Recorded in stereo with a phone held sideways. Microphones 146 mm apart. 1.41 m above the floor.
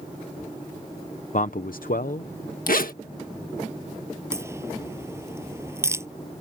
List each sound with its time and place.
1.3 s a man speaking: 60° left (ahead or behind); by 2.6 s 55° left (ahead or behind)
2.7 s a zipper: 75° left (ahead or behind)
4.3 s a crack: 15° right (ahead or behind)